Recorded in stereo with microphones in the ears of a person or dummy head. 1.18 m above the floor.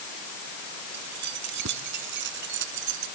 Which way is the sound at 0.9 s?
50° right (ahead or behind).